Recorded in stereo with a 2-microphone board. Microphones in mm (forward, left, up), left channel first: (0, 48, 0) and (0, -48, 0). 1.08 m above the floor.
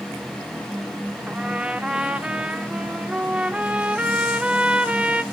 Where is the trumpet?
10° right (ahead or behind), 0.7 m.